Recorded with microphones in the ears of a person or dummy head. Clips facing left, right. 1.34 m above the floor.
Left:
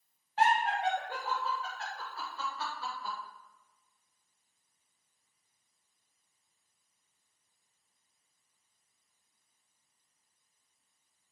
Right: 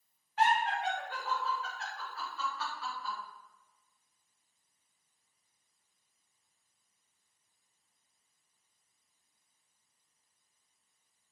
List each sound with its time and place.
0.4 s laughter: 30° left (ahead or behind), 0.7 m